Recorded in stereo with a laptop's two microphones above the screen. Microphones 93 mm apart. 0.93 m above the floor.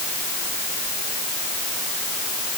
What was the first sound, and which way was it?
Only background noise.